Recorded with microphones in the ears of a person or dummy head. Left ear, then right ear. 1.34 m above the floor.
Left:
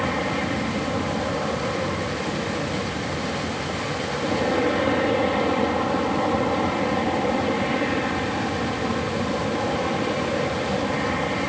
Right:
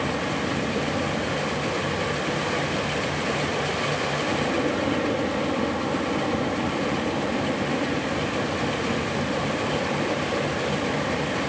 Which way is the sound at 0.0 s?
35° left (ahead or behind).